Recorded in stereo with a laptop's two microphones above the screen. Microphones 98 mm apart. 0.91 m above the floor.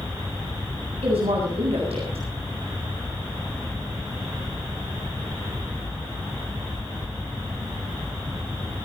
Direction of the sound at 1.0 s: 80° right.